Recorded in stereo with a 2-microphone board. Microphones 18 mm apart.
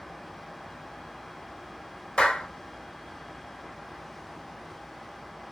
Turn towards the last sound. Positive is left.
turn(degrees=60)  # may be behind; listen again after turning